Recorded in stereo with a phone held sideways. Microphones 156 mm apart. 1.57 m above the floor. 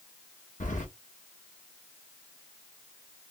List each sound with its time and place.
0.6 s keys jangling: 50° left (ahead or behind), 1.2 m